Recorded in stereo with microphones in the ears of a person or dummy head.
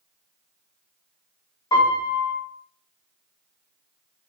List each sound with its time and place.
1.7 s a piano: 15° left (ahead or behind), 1.2 m